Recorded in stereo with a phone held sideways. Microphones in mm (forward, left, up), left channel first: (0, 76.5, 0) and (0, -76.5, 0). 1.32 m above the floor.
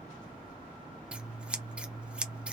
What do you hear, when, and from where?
1.1 s scissors: 5° right (ahead or behind), 0.5 m